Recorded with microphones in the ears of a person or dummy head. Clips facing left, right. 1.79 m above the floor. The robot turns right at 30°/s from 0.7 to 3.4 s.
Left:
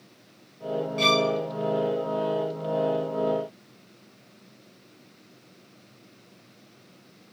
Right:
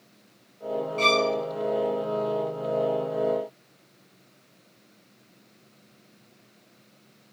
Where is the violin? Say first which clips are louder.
Even; 15° left (ahead or behind), 0.7 m; by 1.3 s 25° left (ahead or behind), 0.7 m.